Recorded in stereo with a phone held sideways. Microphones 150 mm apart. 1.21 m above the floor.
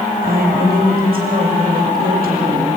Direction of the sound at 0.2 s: 75° right (ahead or behind).